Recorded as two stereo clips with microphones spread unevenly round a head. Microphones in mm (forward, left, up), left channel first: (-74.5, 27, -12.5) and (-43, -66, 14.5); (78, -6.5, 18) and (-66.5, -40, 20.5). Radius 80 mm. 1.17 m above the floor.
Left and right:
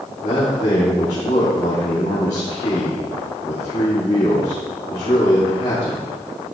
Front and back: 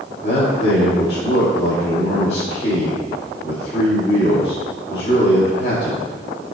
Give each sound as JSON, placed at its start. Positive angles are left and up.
{"t": 0.2, "sound": "a man speaking", "azimuth_deg": 65, "distance_m": 2.0}